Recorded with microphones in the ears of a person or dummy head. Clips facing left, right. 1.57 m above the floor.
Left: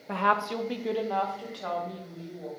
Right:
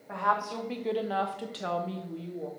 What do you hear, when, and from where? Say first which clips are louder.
0.1 s a woman speaking: left 3 dB; 50° left (ahead or behind), 1.0 m; by 2.5 s 40° right (ahead or behind), 2 m